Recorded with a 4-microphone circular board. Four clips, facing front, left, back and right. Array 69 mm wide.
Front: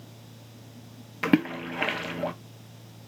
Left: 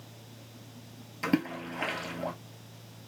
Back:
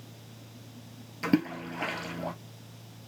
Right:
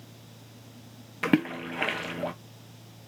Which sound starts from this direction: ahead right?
A splash, at 1.2 s.